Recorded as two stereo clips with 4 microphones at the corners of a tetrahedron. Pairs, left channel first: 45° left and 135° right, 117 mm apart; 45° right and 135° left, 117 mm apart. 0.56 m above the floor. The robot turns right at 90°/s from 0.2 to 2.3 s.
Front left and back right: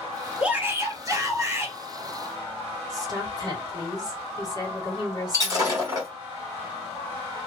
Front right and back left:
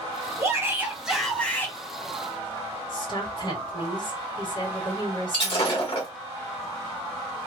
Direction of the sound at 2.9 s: 80° right.